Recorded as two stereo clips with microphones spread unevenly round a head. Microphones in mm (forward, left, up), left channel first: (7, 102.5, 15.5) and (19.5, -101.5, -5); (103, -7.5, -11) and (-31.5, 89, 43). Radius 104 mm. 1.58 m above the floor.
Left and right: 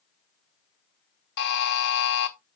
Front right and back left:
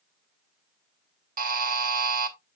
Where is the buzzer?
130° left, 1.3 m.